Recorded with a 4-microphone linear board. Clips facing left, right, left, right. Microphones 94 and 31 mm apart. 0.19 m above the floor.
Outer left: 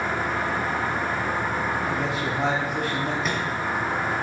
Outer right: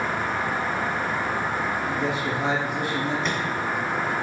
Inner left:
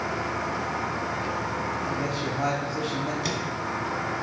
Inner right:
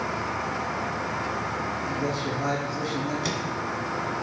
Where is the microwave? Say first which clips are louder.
Even, even; 5° left (ahead or behind), 1.4 m.